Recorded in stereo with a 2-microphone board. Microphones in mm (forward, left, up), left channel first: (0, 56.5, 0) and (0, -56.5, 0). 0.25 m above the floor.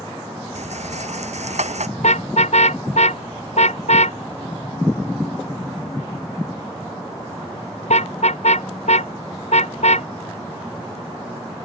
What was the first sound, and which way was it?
A rattle, 85° right.